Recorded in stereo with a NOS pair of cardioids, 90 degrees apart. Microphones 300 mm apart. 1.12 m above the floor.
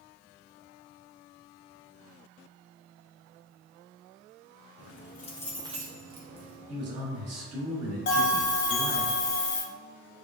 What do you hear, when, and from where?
4.8 s keys jangling: 55° left, 0.8 m; by 6.7 s 60° right, 1.1 m
6.7 s a man speaking: 60° right, 1.3 m
8.1 s a bell: 40° left, 0.8 m